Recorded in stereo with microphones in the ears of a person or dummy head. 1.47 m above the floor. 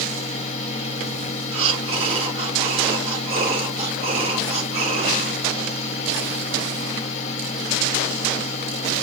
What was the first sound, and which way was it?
A fan, 35° left (ahead or behind).